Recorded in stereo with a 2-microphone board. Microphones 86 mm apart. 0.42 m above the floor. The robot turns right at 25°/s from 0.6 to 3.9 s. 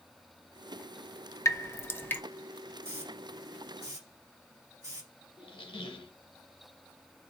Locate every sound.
1.4 s dripping: 40° left (ahead or behind), 0.5 m; by 2.2 s 20° left (ahead or behind), 0.5 m
2.8 s a hiss: 30° right (ahead or behind), 1.8 m; by 5.1 s 40° right (ahead or behind), 1.8 m
5.4 s a squeak: 85° left, 0.8 m